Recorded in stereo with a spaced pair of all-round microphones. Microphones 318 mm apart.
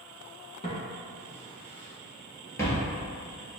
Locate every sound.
0.6 s footsteps: 20° left (ahead or behind), 1.9 m; by 2.9 s 5° left (ahead or behind), 1.3 m